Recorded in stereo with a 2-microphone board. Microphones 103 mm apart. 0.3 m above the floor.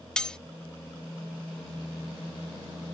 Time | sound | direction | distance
0.2 | cutlery clinking | 10° left (ahead or behind) | ?